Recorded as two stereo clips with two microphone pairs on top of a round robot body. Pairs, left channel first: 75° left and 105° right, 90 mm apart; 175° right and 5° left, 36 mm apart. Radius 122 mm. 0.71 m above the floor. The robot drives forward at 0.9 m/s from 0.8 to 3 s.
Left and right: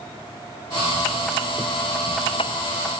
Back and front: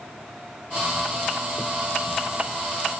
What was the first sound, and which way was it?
Only background noise.